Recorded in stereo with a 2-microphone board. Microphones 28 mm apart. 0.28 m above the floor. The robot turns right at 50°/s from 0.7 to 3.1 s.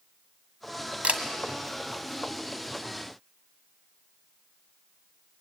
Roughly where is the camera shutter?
Right.